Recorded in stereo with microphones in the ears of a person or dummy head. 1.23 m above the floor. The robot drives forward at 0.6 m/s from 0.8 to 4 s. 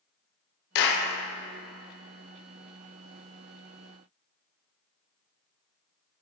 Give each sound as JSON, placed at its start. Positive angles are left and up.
{"t": 0.8, "sound": "a clap", "side_deg": 60, "distance_m": 1.1}